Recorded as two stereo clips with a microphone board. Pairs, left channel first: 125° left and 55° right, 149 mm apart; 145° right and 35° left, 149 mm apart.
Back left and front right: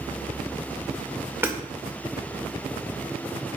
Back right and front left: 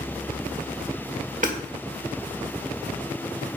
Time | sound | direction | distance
1.4 | hammering | 15° left | 1.5 m